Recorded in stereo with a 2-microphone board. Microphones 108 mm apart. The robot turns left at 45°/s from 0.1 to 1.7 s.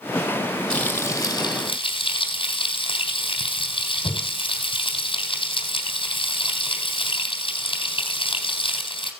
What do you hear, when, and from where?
0.7 s frying: 170° left, 3.5 m; by 9.1 s 125° left, 3.5 m